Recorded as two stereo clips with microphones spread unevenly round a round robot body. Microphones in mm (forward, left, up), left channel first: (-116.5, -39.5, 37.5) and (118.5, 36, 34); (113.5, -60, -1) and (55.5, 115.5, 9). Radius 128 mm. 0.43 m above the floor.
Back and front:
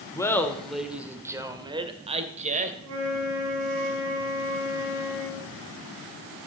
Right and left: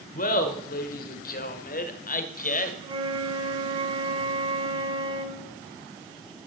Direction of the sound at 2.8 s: 50° left.